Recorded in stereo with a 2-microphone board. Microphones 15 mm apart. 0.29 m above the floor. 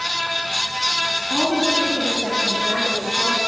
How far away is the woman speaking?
About 7.5 m.